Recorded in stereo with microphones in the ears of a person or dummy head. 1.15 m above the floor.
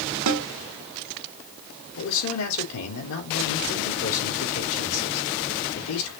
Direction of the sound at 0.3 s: 75° right (ahead or behind).